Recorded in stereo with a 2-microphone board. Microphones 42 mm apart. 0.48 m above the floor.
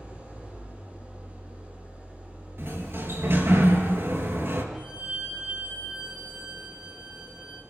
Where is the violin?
20° right (ahead or behind), 6.5 m.